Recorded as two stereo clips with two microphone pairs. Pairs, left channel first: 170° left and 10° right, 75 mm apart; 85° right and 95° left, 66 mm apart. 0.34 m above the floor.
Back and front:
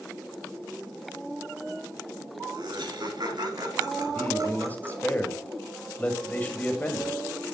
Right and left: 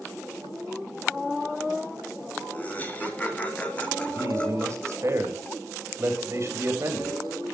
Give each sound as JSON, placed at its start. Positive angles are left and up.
{"t": 2.5, "sound": "laughter", "azimuth_deg": -25, "distance_m": 3.0}
{"t": 4.1, "sound": "a man speaking", "azimuth_deg": 110, "distance_m": 2.0}